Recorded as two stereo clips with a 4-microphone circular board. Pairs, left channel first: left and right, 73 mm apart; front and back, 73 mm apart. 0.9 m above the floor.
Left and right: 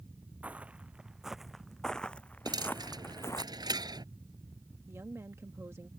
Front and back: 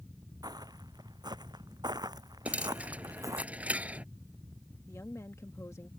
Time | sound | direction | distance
0.4 | footsteps | 160° right | ?
2.5 | a dropped coin | 110° right | ?
4.9 | a woman speaking | 40° right | ?